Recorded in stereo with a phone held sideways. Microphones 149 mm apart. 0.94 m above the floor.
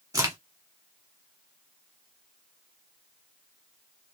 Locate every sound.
0.1 s a crack: 25° right (ahead or behind), 1.3 m